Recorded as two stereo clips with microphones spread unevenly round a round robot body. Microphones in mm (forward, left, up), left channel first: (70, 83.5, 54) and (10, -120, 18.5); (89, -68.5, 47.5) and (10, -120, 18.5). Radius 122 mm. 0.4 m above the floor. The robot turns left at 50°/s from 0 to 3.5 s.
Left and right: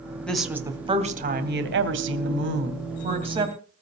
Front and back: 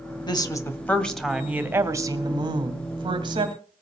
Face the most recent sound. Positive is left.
turn(degrees=180)